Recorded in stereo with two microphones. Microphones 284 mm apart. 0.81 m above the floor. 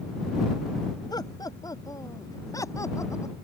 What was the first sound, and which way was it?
Laughter, 15° left (ahead or behind).